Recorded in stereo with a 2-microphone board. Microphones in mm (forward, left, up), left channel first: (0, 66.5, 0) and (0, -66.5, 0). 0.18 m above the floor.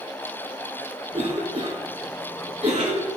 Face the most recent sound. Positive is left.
turn(degrees=-45)  # may be behind; listen again after turning